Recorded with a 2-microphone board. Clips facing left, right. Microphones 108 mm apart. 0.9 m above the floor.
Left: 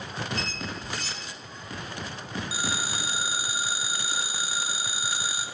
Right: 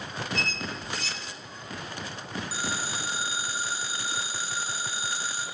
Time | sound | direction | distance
0.3 | a squeak | 50° left (ahead or behind) | 2.5 m
2.5 | a phone ringing | 15° left (ahead or behind) | 2.5 m